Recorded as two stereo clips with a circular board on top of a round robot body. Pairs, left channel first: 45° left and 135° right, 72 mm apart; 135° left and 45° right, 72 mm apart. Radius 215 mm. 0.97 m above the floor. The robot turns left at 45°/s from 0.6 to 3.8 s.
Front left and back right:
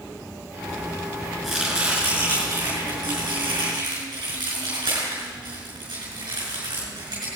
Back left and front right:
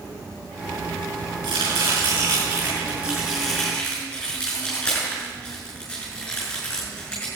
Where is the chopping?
40° right, 6 m; by 7.3 s 145° right, 6 m.